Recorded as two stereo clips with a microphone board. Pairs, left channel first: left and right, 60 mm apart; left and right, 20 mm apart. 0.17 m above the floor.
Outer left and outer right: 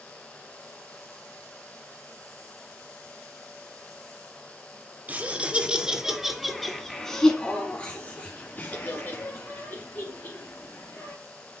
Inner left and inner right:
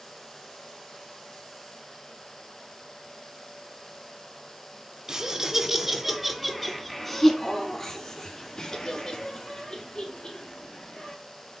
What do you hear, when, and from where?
5.1 s laughter: 30° right (ahead or behind), 1.3 m; by 11.1 s 40° left (ahead or behind), 3 m